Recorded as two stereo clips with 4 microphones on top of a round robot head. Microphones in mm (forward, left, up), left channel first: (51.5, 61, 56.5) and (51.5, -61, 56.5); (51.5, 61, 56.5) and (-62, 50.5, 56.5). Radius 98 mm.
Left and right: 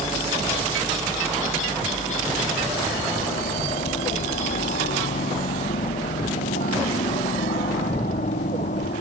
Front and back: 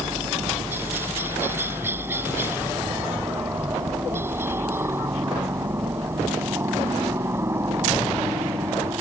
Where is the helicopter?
115° left; by 9.0 s 120° left.